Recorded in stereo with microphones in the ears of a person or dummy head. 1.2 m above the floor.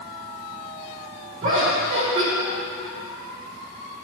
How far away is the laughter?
About 3.5 m.